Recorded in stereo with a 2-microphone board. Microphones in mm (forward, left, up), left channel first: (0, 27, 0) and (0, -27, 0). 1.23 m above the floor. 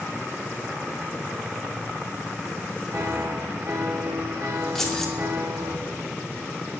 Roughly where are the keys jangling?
Centre.